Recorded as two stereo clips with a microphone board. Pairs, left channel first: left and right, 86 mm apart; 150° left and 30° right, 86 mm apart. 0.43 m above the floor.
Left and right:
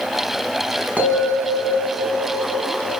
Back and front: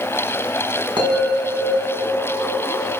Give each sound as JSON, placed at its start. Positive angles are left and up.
{"t": 1.0, "sound": "a bell", "azimuth_deg": -20, "distance_m": 4.5}